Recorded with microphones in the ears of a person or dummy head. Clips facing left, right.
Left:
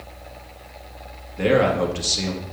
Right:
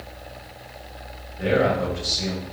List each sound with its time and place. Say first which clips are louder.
1.4 s a man speaking: left 3 dB; 85° left, 1.6 m